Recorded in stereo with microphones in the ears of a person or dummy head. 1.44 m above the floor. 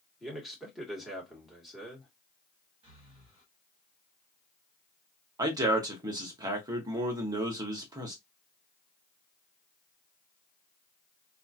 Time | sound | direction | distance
0.2 | a man speaking | 5° right (ahead or behind) | 1.6 m
2.8 | breathing | 35° right (ahead or behind) | 1.5 m
5.4 | a man speaking | 25° right (ahead or behind) | 0.9 m